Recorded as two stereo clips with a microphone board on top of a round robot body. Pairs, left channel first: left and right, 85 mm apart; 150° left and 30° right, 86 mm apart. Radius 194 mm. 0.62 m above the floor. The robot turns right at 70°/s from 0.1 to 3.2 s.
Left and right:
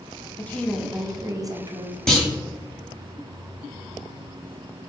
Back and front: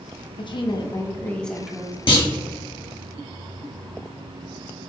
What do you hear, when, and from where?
0.4 s a woman speaking: 155° left, 1.0 m; by 2.0 s 95° right, 1.0 m
2.1 s a clunk: 175° left, 1.5 m; by 2.3 s 170° right, 1.5 m